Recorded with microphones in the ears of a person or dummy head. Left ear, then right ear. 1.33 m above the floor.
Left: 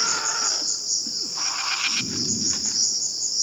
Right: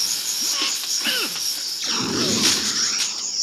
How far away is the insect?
About 4.5 m.